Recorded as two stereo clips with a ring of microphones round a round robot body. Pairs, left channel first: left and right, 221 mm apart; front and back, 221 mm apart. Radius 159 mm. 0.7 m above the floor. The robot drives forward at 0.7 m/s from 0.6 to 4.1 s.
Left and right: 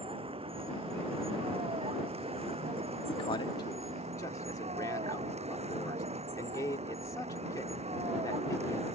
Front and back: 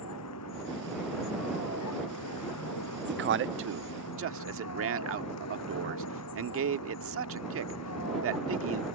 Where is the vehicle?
25° right; by 9.0 s 30° right.